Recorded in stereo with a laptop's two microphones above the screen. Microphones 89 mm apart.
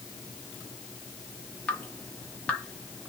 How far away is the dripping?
About 1.4 m.